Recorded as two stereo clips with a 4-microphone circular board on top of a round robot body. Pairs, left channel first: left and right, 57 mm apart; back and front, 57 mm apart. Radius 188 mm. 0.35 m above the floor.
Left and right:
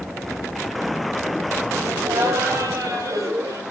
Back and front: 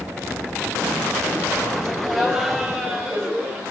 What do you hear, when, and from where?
1.8 s laughter: 80° right, 3 m; by 3.6 s 70° right, 4 m